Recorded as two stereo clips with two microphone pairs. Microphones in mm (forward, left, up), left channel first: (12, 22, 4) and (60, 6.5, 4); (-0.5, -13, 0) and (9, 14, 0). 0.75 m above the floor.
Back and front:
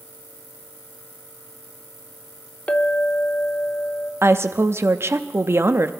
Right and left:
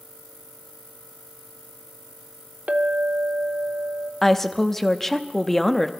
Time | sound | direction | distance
2.7 | a clink | 95° left | 1.0 m
4.2 | a woman speaking | 25° right | 0.8 m